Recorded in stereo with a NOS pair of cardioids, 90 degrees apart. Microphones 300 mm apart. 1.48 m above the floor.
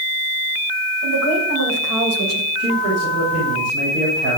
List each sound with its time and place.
1.0 s a woman speaking: 65° right, 7.5 m; by 2.5 s 55° right, 7 m
2.6 s a man speaking: 60° right, 8 m